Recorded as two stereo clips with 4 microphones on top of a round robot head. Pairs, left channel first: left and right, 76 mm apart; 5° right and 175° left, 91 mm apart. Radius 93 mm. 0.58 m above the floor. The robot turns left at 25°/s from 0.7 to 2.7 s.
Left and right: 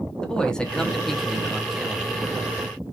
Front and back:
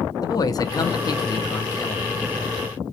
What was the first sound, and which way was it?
A man speaking, 15° left.